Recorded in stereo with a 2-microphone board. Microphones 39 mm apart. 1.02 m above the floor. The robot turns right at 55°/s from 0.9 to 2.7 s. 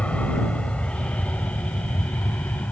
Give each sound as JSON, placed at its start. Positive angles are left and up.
{"t": 0.0, "sound": "an aircraft", "side_deg": 30}